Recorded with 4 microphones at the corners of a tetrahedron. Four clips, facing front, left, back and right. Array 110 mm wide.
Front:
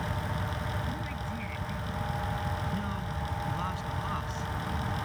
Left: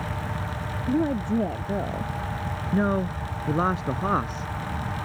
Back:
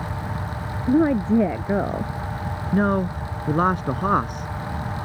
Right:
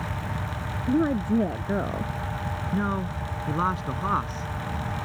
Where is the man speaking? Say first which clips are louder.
Left 5 dB, back 14 dB; 160° left.